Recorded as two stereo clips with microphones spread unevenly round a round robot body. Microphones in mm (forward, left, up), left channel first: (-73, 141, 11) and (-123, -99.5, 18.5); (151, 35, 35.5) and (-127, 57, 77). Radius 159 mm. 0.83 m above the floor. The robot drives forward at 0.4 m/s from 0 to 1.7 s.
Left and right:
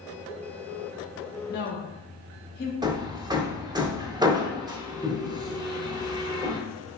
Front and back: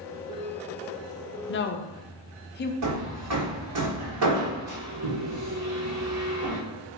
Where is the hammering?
175° right, 0.6 m.